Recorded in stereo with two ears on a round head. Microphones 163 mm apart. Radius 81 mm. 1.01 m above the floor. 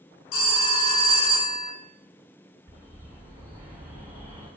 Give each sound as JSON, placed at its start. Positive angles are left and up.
{"t": 0.3, "sound": "a phone ringing", "side_deg": 80, "distance_m": 0.5}
{"t": 2.7, "sound": "a bird", "side_deg": -20, "distance_m": 1.5}